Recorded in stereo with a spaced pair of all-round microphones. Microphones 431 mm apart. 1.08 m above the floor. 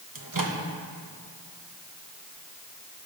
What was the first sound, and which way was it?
A microwave, 50° right (ahead or behind).